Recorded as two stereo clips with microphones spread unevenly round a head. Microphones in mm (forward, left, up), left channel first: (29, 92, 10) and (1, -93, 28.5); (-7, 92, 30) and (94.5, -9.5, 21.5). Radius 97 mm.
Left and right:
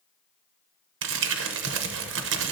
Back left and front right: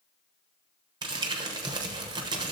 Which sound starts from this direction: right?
Crumpling, at 1.0 s.